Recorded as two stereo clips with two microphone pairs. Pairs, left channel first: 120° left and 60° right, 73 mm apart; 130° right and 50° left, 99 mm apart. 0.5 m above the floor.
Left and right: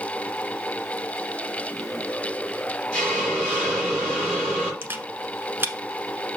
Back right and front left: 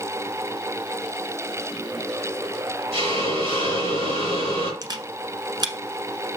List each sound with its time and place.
2.9 s a hiss: 45° left, 4.5 m
4.8 s a camera shutter: straight ahead, 1.0 m